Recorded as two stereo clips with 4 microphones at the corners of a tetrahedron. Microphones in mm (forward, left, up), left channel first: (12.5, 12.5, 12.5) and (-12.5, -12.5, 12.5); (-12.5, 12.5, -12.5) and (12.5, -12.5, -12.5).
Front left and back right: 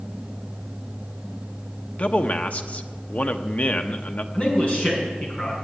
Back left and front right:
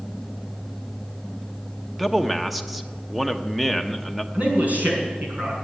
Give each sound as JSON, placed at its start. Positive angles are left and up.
{"t": 2.0, "sound": "a man speaking", "azimuth_deg": 40, "distance_m": 1.0}
{"t": 4.3, "sound": "a man speaking", "azimuth_deg": -5, "distance_m": 6.0}